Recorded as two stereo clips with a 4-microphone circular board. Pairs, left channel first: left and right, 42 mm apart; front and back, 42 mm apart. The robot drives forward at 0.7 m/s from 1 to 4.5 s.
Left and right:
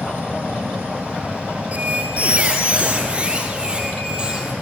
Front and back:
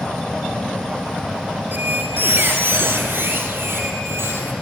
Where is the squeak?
140° right, 2 m; by 4.5 s 160° right, 4 m.